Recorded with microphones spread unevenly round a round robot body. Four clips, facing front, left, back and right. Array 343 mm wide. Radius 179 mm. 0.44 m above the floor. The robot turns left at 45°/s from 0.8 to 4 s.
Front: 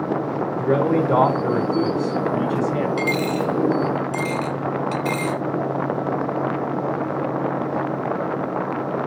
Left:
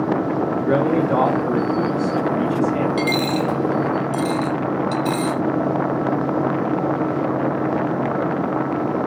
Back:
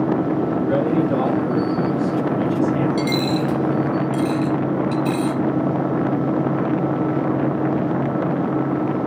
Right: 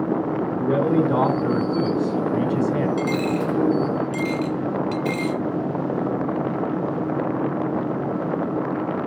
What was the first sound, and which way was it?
A man speaking, 25° left.